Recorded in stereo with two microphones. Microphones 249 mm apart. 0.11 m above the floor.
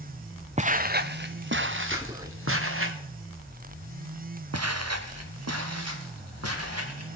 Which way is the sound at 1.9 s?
15° right (ahead or behind).